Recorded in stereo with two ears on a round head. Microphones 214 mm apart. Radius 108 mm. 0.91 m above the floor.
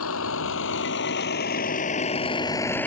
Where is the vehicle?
60° left (ahead or behind); by 2.9 s 5° left (ahead or behind).